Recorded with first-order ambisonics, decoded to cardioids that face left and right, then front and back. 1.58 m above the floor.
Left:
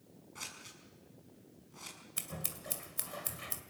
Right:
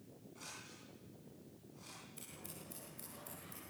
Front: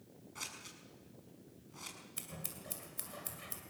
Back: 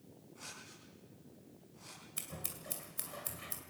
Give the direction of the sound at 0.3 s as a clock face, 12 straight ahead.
11 o'clock.